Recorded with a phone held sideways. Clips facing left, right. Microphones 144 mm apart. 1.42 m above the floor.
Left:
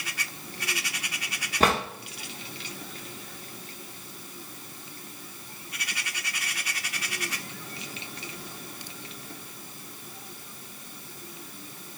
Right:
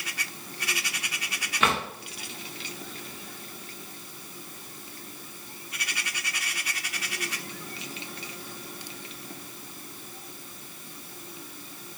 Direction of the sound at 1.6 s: 35° left (ahead or behind).